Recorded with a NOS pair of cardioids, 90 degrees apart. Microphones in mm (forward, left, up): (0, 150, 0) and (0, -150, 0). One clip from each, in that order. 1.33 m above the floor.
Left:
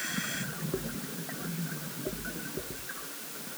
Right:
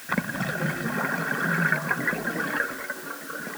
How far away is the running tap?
I don't hear a running tap.